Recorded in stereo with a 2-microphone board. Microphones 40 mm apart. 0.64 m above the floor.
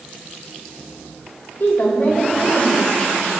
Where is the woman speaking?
50° left (ahead or behind), 3.5 m.